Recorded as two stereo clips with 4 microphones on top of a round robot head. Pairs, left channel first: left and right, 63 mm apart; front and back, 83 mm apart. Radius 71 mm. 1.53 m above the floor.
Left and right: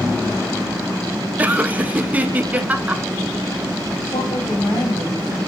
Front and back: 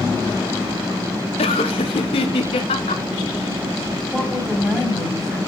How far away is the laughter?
About 1.3 m.